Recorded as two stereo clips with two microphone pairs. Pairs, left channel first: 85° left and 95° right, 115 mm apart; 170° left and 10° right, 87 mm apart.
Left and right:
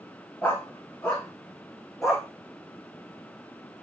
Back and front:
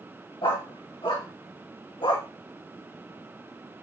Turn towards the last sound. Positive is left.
turn(degrees=175)